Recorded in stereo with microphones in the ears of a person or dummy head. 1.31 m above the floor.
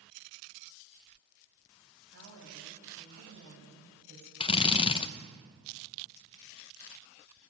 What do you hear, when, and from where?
2.1 s a woman speaking: 90° right, 9.5 m
4.4 s a drill: 30° left (ahead or behind), 0.8 m